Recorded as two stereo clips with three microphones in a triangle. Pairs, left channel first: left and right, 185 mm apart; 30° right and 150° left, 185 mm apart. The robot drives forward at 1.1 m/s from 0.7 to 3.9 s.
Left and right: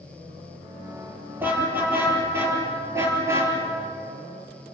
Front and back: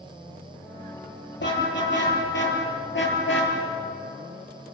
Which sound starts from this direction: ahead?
A car horn, at 1.4 s.